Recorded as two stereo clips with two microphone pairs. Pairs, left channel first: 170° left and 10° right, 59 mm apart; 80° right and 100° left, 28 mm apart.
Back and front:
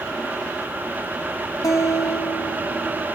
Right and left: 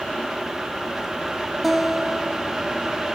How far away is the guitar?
About 1.2 m.